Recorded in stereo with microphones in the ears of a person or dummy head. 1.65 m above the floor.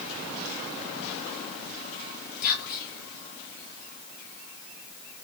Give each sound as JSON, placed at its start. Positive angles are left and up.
{"t": 2.4, "sound": "whispering", "side_deg": 55, "distance_m": 1.3}